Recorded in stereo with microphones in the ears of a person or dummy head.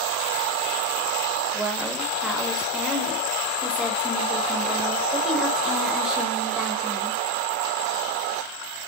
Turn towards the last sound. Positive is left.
turn(degrees=0)  # may be behind; listen again after turning